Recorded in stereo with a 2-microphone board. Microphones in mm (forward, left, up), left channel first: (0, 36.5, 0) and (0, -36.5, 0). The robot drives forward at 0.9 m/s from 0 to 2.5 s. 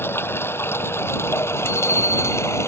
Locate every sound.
0.0 s running water: 30° left (ahead or behind); by 2.7 s 40° left (ahead or behind)
1.6 s a bicycle bell: 35° left (ahead or behind); by 2.6 s 45° left (ahead or behind)